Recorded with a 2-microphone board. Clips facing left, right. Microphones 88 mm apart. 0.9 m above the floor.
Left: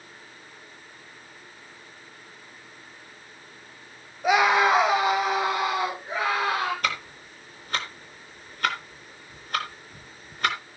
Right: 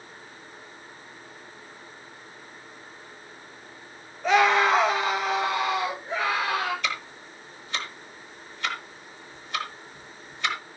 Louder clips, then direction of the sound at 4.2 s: Even; 10° left (ahead or behind).